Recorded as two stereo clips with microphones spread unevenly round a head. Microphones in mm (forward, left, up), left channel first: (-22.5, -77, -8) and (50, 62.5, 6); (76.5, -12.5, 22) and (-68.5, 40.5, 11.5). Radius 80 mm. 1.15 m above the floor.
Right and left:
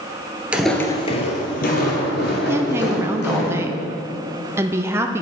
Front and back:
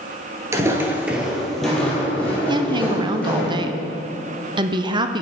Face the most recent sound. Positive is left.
turn(degrees=135)